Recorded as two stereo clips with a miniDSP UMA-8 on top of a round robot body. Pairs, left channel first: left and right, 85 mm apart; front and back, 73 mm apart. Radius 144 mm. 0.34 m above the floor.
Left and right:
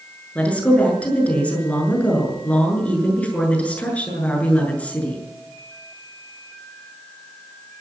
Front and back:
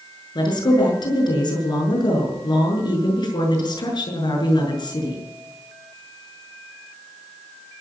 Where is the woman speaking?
15° left, 6.5 m.